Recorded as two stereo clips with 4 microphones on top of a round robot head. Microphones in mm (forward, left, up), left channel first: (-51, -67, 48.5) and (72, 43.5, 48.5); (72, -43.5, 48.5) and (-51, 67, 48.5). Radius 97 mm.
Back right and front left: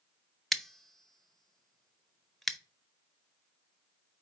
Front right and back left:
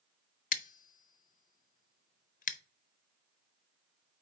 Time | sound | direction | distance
0.5 | scissors | 50° right | 0.7 m